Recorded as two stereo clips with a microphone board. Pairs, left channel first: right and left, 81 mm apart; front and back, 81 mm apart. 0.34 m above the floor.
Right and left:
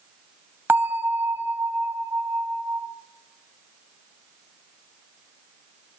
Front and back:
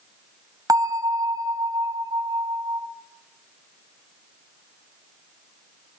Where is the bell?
150° left, 2 m.